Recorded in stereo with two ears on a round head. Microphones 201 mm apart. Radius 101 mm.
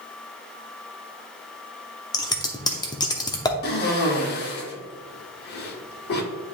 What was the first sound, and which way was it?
Scissors, 15° left (ahead or behind).